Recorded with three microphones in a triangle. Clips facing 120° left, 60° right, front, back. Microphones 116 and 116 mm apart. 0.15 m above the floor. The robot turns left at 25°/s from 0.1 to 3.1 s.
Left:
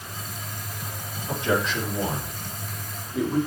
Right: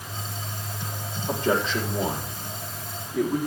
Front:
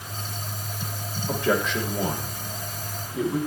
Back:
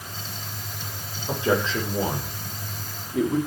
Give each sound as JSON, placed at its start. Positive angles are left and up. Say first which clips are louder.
{"t": 1.3, "sound": "a man speaking", "louder": "right 1 dB, back 1 dB", "azimuth_deg": -110, "distance_m": 7.0}